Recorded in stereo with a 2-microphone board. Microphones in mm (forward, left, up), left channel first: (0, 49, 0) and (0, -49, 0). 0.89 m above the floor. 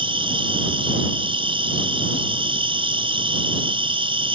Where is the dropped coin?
I don't hear a dropped coin.